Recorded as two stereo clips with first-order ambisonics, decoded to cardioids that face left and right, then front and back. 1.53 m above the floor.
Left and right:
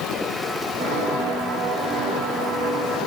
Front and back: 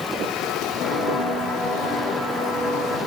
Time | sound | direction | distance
0.8 | footsteps | 60° right | 4 m